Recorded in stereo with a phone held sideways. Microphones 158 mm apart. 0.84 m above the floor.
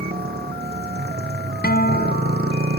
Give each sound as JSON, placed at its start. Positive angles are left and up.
{"t": 0.0, "sound": "a motorcycle", "side_deg": -80}
{"t": 1.6, "sound": "a guitar", "side_deg": 85}